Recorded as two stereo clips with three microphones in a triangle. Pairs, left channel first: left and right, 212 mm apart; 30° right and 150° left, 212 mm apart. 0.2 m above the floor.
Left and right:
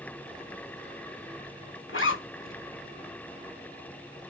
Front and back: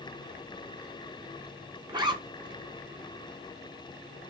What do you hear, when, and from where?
1.9 s a zipper: 85° left, 0.6 m